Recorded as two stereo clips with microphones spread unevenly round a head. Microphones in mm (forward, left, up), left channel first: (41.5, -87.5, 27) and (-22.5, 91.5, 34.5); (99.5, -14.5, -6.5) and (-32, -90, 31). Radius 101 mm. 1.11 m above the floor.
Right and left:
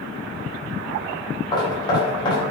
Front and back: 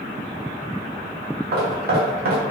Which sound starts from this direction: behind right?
Knocking, at 1.5 s.